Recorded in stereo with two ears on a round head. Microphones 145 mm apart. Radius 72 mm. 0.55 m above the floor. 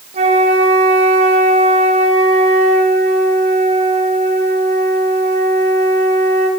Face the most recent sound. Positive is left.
turn(degrees=-40)  # may be behind; listen again after turning